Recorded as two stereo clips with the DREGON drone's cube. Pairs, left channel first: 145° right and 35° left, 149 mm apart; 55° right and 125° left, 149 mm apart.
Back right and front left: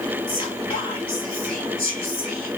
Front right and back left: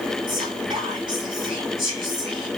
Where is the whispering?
170° left, 1.0 m.